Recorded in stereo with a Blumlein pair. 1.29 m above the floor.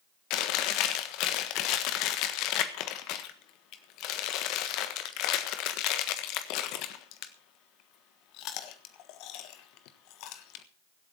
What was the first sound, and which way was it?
Chewing, 40° left.